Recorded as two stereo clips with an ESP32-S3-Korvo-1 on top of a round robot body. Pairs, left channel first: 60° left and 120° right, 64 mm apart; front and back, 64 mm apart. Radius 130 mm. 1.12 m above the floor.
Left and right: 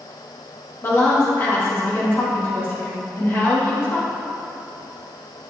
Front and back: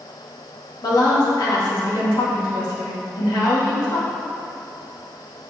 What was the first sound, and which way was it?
A woman speaking, 5° left.